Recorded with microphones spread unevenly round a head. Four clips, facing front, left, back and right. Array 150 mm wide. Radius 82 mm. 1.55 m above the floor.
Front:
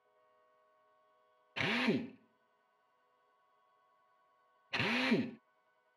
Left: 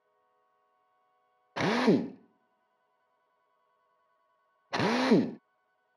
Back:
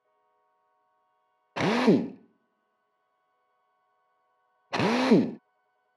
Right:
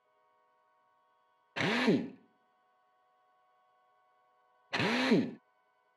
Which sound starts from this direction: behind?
A drill, at 1.6 s.